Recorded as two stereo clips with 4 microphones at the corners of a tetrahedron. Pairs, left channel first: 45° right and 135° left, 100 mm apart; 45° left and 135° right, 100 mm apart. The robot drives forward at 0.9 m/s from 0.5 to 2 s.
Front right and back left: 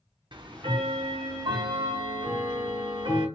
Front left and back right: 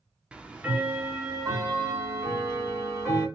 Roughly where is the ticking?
Behind left.